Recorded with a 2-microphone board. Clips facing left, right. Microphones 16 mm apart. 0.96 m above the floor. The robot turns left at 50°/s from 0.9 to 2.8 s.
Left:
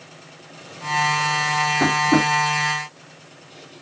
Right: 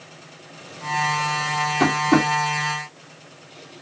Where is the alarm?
I don't hear an alarm.